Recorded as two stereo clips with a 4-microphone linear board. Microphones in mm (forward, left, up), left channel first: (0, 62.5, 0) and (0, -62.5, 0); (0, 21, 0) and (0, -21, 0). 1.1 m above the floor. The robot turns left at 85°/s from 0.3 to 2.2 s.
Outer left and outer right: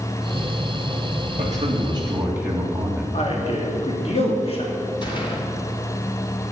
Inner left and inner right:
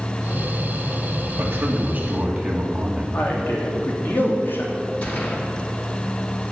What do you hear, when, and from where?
1.4 s a man speaking: 95° right, 2.5 m; by 3.0 s 165° right, 2.5 m
3.1 s a man speaking: 55° left (ahead or behind), 3 m
5.0 s a gunshot: 40° left (ahead or behind), 2.0 m